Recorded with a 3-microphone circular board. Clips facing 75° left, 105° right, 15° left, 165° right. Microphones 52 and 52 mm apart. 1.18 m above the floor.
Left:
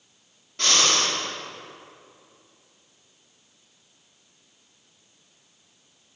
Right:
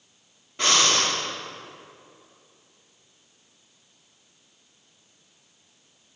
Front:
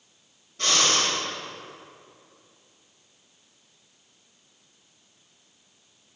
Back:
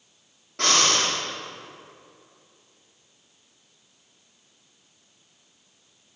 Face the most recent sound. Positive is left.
turn(degrees=180)